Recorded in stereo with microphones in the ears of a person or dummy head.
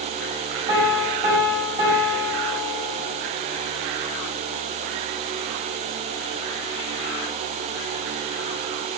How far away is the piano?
About 1.3 m.